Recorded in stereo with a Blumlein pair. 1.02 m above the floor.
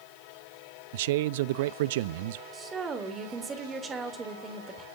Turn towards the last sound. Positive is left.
turn(degrees=-20)